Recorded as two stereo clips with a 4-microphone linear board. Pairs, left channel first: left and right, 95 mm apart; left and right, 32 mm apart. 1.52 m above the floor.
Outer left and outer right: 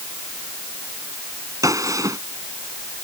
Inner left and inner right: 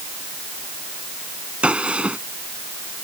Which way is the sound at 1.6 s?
35° right (ahead or behind).